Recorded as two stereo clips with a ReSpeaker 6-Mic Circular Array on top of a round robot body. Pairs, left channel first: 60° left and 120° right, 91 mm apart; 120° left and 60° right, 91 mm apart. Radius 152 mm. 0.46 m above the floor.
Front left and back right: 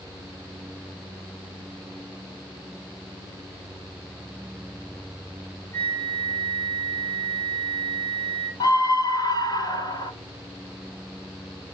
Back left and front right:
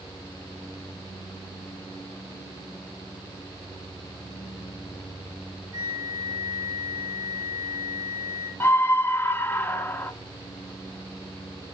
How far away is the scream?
About 1.7 m.